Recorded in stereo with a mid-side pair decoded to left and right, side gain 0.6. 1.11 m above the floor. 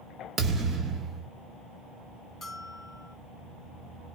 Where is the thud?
30° right, 1.6 m.